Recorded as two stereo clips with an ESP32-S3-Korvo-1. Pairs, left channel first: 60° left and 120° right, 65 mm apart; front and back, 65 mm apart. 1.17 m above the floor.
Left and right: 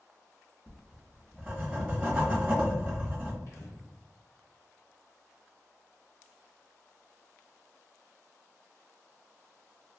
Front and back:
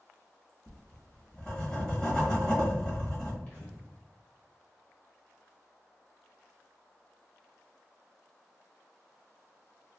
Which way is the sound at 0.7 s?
65° right.